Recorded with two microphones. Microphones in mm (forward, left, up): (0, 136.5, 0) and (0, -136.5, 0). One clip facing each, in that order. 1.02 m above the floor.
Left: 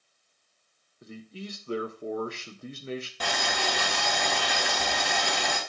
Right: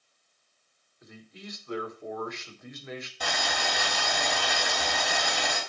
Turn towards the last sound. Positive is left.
turn(degrees=85)